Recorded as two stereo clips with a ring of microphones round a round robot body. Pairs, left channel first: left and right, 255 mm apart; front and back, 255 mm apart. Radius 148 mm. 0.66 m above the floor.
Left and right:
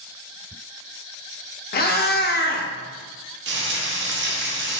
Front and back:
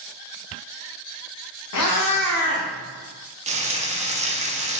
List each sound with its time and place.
1.7 s a cat meowing: 35° left, 0.6 m
3.5 s frying: 120° right, 0.7 m